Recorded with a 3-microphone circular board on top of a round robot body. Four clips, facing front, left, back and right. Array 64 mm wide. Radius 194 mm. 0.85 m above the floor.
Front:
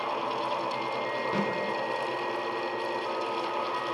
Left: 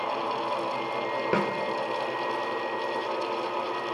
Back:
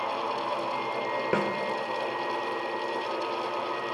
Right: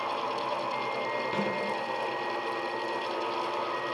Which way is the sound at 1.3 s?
135° left.